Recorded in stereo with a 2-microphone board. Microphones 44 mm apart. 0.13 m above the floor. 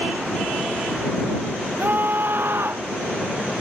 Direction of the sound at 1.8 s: 50° right (ahead or behind).